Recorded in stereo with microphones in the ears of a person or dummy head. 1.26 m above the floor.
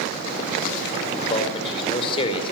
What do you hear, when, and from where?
1.2 s a man speaking: 30° left (ahead or behind), 4.5 m